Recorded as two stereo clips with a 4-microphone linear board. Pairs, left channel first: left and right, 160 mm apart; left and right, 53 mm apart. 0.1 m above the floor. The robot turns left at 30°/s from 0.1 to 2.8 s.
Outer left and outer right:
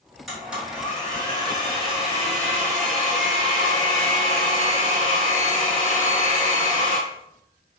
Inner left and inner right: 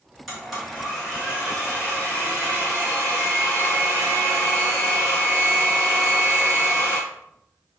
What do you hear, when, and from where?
0.3 s a blender: straight ahead, 1.4 m; by 7.0 s 75° right, 1.4 m